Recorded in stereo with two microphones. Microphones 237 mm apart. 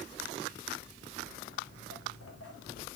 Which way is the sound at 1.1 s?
80° left.